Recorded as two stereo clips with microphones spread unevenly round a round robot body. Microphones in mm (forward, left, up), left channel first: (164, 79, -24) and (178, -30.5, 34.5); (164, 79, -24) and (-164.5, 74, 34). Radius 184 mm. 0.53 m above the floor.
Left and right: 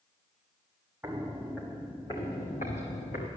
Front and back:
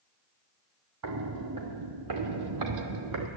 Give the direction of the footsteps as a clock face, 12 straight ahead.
5 o'clock.